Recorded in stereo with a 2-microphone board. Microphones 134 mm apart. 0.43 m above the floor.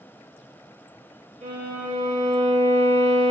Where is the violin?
70° right (ahead or behind), 0.6 m.